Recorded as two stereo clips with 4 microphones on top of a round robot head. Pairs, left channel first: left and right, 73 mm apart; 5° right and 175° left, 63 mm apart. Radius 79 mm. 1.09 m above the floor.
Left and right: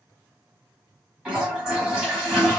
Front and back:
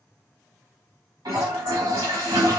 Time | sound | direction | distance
1.2 | a toilet flushing | 175° right | 1.0 m